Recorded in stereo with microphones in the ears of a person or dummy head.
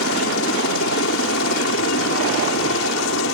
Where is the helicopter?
65° left (ahead or behind).